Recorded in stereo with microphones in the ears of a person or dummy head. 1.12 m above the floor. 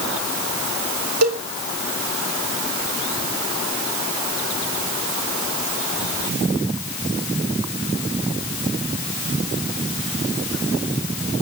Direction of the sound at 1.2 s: 85° right.